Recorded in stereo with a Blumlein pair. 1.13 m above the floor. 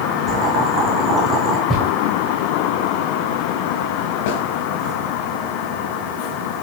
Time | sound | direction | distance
0.3 | boiling | 15° right | 3.5 m
1.7 | footsteps | straight ahead | 7.5 m
4.3 | a snare drum | 50° left | 3 m